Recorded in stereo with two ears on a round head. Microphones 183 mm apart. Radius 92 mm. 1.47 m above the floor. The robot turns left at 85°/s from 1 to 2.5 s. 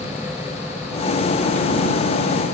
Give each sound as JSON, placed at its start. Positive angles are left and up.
{"t": 0.0, "sound": "an engine running", "azimuth_deg": -10}